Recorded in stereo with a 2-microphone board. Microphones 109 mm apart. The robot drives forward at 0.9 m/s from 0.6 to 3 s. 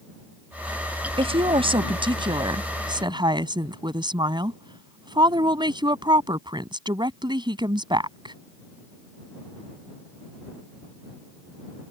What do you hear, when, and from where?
1.2 s a woman speaking: 60° right (ahead or behind); by 8.3 s 45° right (ahead or behind)